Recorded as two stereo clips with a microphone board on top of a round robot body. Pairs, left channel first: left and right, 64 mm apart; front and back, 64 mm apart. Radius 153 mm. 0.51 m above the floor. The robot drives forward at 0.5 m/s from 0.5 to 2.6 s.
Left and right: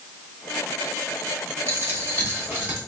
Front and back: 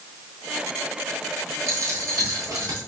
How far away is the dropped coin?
About 1.5 m.